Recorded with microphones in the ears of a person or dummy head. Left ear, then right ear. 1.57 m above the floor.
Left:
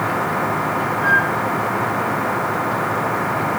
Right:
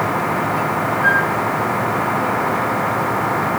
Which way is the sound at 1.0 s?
15° left (ahead or behind).